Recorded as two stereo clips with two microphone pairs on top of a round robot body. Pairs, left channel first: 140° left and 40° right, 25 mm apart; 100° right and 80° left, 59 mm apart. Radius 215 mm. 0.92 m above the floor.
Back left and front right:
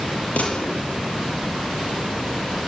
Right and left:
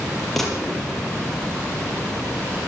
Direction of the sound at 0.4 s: 175° left.